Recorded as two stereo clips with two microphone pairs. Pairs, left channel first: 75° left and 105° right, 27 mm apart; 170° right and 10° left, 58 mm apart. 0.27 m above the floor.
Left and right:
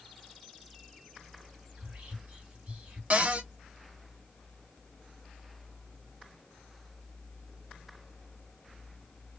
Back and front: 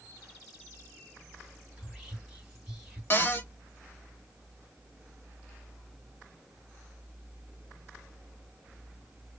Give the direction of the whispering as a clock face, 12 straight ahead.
3 o'clock.